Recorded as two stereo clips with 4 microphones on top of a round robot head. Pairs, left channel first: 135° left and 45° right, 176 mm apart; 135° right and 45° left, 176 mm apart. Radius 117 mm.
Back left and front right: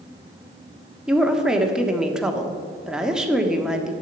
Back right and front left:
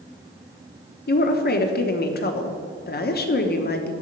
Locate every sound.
1.1 s a woman speaking: 130° right, 1.2 m